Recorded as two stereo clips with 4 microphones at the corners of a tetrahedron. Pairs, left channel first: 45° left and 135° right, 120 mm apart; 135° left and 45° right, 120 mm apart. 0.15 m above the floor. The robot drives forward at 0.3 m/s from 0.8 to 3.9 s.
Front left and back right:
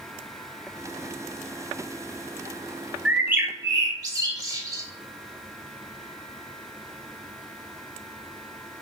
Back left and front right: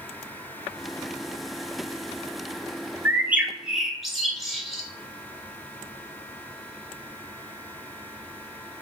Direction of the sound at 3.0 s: 70° right.